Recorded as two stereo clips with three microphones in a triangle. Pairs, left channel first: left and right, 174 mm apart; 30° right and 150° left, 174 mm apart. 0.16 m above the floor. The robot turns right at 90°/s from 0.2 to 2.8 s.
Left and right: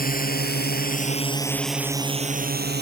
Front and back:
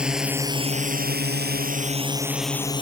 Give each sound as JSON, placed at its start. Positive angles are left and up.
{"t": 0.0, "sound": "a drone", "azimuth_deg": 65}